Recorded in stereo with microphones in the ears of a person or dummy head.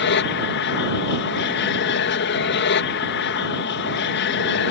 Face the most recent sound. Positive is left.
turn(degrees=60)  # may be behind; listen again after turning